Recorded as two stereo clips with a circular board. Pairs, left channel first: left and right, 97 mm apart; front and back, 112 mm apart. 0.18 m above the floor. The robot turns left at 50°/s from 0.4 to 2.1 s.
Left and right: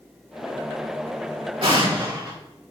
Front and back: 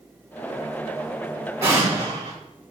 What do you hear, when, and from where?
1.6 s an explosion: 115° right, 3 m; by 2.3 s 140° right, 3 m